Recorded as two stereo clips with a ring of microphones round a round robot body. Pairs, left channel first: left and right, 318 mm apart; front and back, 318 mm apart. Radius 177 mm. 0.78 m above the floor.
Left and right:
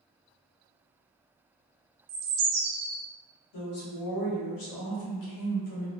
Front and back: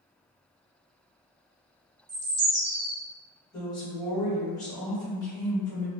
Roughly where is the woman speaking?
Left.